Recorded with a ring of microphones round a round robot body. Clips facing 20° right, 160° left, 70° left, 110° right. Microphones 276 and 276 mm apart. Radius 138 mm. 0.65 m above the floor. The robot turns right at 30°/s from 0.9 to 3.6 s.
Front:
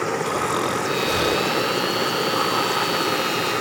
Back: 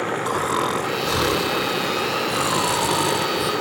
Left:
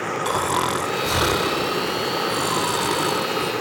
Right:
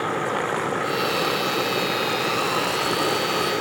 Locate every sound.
0.2 s snoring: 75° left; by 3.5 s 155° left